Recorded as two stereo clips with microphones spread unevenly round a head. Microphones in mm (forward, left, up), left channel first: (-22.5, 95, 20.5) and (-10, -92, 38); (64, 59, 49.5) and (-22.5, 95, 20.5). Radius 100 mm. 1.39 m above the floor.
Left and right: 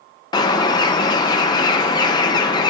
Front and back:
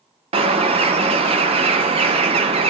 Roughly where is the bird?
Behind.